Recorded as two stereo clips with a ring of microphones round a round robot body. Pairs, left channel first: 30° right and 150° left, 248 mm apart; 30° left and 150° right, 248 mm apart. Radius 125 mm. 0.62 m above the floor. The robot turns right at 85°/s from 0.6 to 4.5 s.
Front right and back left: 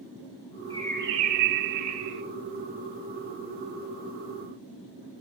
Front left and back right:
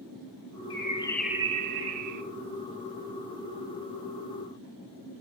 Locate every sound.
0.7 s a bird: 75° left, 0.9 m; by 2.2 s 155° right, 0.9 m